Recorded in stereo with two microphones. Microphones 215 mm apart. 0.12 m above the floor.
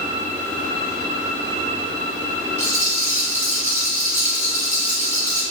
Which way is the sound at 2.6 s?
35° right (ahead or behind).